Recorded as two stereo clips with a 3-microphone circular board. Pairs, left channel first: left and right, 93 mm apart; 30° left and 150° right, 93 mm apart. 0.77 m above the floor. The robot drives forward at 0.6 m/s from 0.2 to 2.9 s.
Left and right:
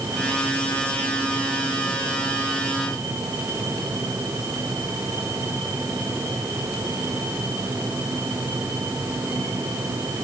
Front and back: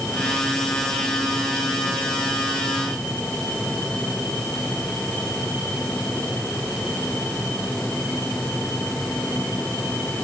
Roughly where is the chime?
I don't hear a chime.